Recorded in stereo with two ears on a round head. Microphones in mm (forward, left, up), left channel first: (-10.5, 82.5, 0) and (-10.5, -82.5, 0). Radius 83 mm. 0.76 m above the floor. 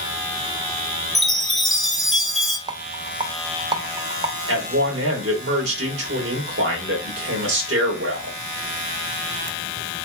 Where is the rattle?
25° right (ahead or behind), 0.6 m.